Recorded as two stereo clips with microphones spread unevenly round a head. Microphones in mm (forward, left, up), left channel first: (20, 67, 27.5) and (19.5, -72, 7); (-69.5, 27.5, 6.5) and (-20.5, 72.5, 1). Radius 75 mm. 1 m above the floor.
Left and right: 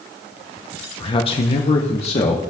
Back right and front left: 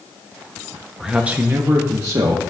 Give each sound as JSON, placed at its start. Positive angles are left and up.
{"t": 1.0, "sound": "a man speaking", "azimuth_deg": 100, "distance_m": 0.5}